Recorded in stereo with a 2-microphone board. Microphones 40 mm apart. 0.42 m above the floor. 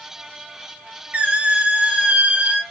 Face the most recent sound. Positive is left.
turn(degrees=-35)  # may be behind; listen again after turning